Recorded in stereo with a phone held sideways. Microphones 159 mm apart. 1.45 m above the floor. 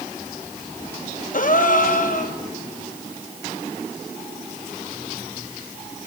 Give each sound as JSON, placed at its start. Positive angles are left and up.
{"t": 1.3, "sound": "a gasp", "side_deg": 60, "distance_m": 1.0}